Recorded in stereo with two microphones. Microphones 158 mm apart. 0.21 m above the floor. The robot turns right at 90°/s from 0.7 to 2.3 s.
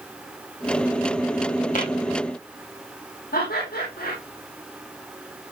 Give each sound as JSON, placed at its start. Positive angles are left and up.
{"t": 1.8, "sound": "tapping", "side_deg": 55, "distance_m": 7.5}
{"t": 3.3, "sound": "laughter", "side_deg": 70, "distance_m": 9.0}